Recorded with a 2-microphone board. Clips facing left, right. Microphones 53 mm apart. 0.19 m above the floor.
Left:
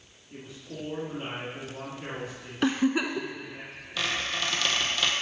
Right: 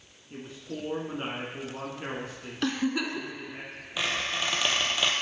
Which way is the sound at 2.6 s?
20° left (ahead or behind).